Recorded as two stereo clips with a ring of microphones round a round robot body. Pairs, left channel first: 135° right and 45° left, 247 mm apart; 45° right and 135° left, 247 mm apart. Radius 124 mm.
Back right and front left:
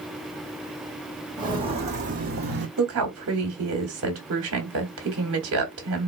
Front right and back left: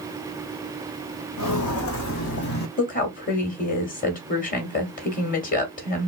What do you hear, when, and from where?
1.4 s footsteps: 30° right, 1.6 m; by 2.7 s 5° left, 1.3 m
2.8 s a woman speaking: 15° left, 1.9 m